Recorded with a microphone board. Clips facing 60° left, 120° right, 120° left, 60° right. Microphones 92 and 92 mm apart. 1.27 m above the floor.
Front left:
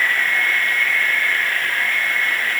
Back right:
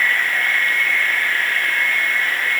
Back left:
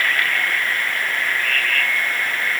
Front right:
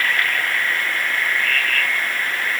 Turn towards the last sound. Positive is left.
No sound to turn to.